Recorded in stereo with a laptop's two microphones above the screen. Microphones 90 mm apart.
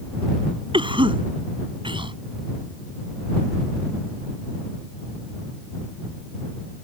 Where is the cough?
65° right (ahead or behind).